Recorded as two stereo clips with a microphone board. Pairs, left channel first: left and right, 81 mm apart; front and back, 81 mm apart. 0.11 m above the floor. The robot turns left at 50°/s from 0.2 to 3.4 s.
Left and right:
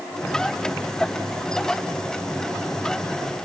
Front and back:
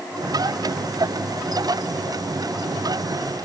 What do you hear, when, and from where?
Only background noise.